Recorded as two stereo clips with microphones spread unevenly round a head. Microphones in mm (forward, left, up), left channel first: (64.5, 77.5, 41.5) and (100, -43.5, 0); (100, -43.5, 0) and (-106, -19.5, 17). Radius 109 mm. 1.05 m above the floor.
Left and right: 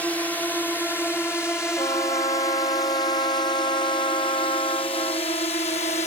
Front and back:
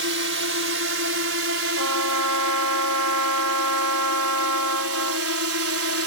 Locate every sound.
0.0 s a drone: 165° right; by 6.1 s 165° left
1.8 s a trumpet: 170° left